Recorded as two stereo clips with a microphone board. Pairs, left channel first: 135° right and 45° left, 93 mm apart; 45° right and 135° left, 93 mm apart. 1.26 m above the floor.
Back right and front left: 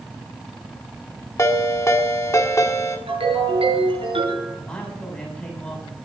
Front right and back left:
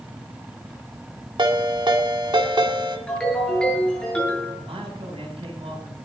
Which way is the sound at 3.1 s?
35° left.